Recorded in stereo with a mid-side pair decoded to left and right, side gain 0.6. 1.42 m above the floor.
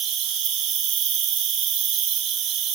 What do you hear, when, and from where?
0.0 s an insect: 60° right, 1.0 m